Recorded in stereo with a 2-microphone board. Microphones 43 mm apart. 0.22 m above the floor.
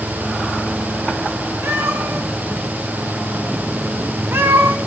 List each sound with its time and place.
1.6 s a cat meowing: 70° right (ahead or behind), 7.5 m; by 4.8 s 75° right (ahead or behind), 5 m